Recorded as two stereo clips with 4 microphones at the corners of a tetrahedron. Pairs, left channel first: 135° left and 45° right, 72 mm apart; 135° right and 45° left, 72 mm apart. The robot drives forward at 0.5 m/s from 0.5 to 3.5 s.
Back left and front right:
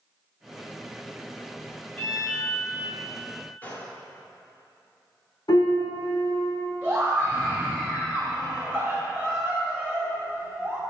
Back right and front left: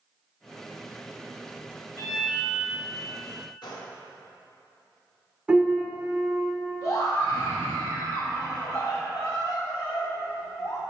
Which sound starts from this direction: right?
A scream, at 6.8 s.